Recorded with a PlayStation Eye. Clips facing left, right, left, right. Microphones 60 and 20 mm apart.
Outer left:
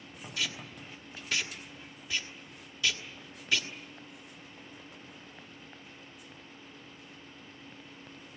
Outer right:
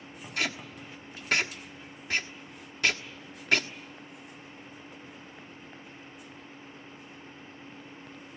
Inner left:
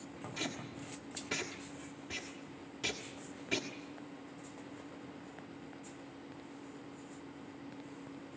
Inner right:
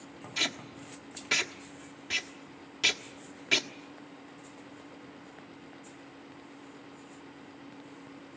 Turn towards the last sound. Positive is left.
turn(degrees=-60)  # may be behind; listen again after turning